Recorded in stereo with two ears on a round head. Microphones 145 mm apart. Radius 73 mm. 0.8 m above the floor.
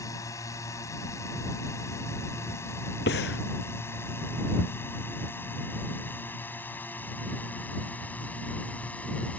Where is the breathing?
65° left (ahead or behind).